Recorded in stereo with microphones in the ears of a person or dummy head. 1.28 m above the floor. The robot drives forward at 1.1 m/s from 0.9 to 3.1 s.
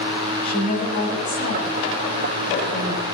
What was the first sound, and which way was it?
A woman speaking, 50° left (ahead or behind).